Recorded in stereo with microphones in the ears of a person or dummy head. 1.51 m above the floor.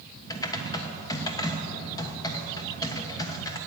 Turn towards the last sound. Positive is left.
turn(degrees=15)  # may be behind; listen again after turning